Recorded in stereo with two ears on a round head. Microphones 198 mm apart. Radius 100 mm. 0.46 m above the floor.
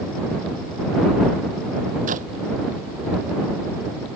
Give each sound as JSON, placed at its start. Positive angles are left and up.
{"t": 2.1, "sound": "a clap", "side_deg": -35}